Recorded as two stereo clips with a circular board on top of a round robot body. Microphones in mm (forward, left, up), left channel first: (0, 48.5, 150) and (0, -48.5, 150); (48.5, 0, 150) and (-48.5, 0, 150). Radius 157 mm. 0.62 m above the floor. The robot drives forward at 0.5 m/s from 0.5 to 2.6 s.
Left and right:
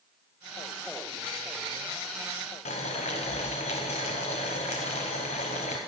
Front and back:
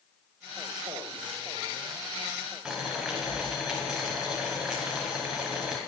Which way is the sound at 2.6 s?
95° left.